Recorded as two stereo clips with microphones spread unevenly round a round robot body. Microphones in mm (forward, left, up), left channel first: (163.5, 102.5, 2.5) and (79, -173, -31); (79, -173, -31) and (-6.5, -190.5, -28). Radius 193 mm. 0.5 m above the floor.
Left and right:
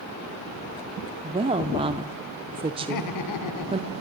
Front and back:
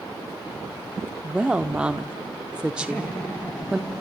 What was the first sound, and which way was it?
A woman speaking, 100° right.